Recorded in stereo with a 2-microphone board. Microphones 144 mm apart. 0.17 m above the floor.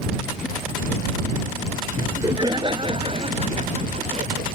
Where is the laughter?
20° right (ahead or behind); by 4.5 s 50° right (ahead or behind).